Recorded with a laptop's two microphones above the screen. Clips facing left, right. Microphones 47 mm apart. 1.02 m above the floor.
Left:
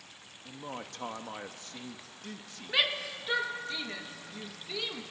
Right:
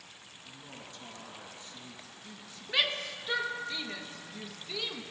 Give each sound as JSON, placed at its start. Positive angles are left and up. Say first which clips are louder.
{"t": 0.5, "sound": "a man speaking", "louder": "left 8 dB", "side_deg": 80, "distance_m": 1.2}
{"t": 2.7, "sound": "a shout", "louder": "left 1 dB", "side_deg": 5, "distance_m": 1.4}